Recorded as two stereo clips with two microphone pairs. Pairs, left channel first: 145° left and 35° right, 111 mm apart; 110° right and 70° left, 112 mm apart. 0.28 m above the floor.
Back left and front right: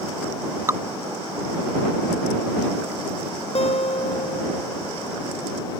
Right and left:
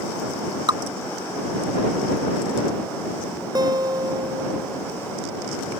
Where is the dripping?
25° left.